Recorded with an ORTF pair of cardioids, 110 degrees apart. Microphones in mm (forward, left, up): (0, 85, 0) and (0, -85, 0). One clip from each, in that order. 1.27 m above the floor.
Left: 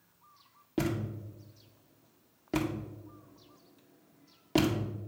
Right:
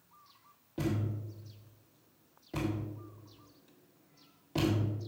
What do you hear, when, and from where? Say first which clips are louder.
0.8 s a thud: left 3 dB; 65° left, 1.7 m